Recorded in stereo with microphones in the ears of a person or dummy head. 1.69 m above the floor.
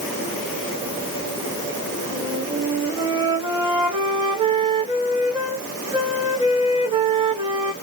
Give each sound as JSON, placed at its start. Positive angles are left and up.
{"t": 2.1, "sound": "a flute", "side_deg": -20, "distance_m": 1.5}